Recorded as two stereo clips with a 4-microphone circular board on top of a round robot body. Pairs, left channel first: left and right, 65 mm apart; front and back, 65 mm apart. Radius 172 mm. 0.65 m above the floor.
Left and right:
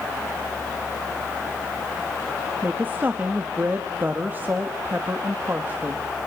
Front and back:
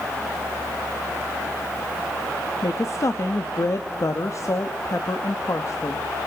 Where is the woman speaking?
30° right, 1.2 m.